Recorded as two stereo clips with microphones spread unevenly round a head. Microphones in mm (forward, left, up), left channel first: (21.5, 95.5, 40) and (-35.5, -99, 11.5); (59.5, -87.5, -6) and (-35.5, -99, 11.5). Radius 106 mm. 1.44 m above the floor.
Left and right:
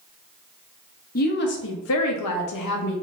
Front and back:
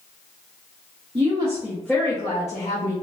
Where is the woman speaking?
125° left, 0.9 m; by 2.9 s 55° left, 0.9 m.